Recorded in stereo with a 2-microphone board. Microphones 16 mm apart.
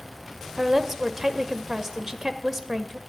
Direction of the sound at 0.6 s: 30° right (ahead or behind).